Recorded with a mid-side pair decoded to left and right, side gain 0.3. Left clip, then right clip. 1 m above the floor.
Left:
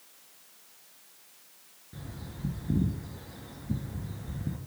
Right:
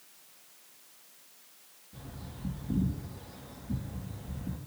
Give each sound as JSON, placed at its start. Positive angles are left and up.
{"t": 1.9, "sound": "a bird", "azimuth_deg": 65, "distance_m": 2.5}